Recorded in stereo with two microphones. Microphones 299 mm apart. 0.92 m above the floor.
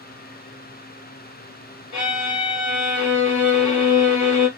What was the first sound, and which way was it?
A violin, 65° left (ahead or behind).